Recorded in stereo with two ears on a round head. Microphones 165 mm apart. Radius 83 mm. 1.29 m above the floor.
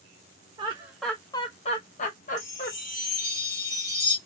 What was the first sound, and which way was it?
Laughter, 25° right (ahead or behind).